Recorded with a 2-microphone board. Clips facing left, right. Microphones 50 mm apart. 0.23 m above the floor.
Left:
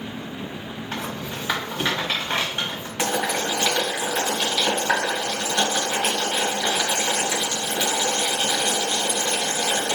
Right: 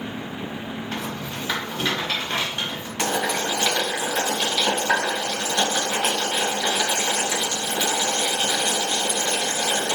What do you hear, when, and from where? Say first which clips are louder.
0.9 s a rattle: left 3 dB; 20° left (ahead or behind), 1.5 m
3.0 s boiling: even; 10° left (ahead or behind), 1.9 m